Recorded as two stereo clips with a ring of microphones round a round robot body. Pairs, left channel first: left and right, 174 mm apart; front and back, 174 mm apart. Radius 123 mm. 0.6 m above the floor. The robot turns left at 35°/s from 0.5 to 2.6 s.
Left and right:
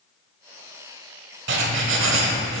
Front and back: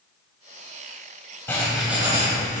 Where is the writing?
80° right, 0.9 m; by 2.6 s 120° right, 0.9 m.